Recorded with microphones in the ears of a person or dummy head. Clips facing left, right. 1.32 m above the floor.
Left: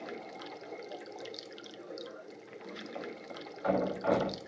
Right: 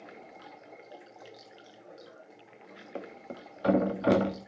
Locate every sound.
0.0 s running water: 55° left (ahead or behind), 0.9 m
3.0 s a thud: 40° right (ahead or behind), 1.2 m